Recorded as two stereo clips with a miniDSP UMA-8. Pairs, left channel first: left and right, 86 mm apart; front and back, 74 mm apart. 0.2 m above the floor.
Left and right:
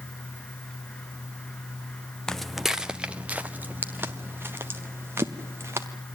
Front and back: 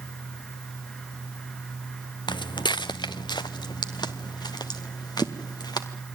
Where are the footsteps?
10° left, 0.7 m; by 5.9 s 30° right, 3 m.